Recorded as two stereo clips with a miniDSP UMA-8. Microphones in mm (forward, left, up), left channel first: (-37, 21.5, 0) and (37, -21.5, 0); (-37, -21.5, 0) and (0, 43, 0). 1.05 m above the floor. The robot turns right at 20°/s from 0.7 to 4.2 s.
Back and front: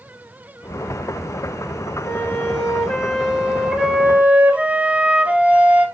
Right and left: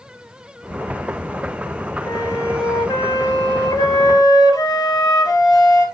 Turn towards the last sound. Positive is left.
turn(degrees=-105)